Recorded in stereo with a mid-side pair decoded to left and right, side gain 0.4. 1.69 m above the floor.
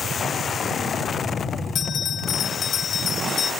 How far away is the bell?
About 2.5 m.